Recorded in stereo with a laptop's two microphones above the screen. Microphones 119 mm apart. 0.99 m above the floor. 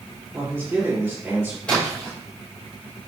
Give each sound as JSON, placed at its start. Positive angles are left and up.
{"t": 0.3, "sound": "a man speaking", "side_deg": -15, "distance_m": 3.5}
{"t": 1.7, "sound": "a splash", "side_deg": 10, "distance_m": 5.0}